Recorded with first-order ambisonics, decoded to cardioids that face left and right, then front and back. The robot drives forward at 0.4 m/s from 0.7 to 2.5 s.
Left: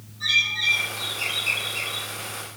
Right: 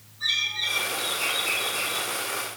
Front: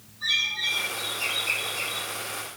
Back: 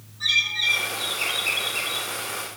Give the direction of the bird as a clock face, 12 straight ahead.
6 o'clock.